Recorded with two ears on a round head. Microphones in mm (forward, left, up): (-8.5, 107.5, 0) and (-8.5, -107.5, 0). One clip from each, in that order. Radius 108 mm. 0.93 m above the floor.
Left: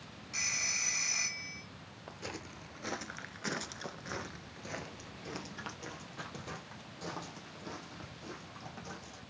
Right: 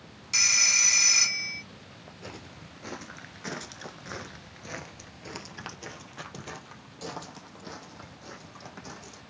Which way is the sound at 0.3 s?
80° right.